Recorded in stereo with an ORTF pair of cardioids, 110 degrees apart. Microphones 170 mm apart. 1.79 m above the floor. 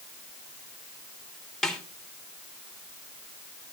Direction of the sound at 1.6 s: 5° left.